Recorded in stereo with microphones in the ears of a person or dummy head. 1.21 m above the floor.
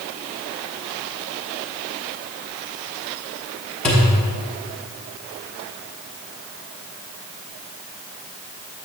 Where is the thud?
Centre (ahead or behind), 0.7 m.